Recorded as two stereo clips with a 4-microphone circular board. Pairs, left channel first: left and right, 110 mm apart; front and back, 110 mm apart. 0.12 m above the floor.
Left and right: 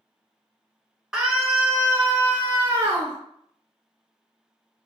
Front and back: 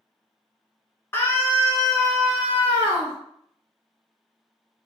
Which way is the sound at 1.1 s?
15° right.